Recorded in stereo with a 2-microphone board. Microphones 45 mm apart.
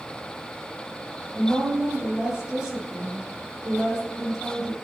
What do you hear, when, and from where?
1.4 s a woman speaking: 20° right (ahead or behind), 4 m